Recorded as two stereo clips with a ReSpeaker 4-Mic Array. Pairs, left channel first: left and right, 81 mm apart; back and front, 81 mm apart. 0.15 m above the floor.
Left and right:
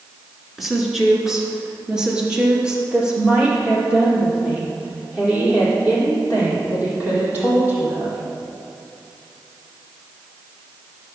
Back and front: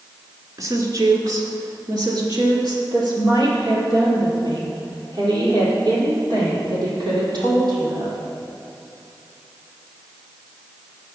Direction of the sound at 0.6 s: 5° right.